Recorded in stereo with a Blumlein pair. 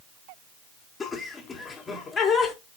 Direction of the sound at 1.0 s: 20° left.